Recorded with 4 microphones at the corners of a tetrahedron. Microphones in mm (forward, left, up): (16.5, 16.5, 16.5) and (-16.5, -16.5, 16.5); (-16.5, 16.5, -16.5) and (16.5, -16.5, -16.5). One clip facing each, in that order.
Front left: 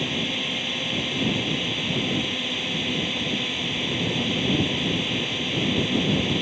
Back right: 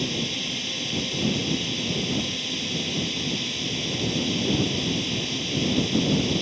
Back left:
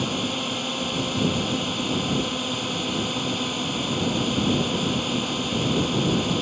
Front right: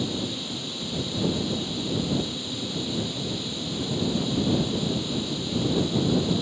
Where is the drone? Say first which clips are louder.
Front left 2 dB, back left 4 dB; 105° left.